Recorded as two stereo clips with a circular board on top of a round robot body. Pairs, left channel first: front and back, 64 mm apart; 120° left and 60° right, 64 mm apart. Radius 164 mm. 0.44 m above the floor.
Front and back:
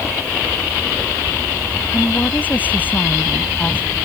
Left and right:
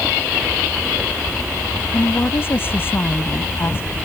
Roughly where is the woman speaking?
Ahead left.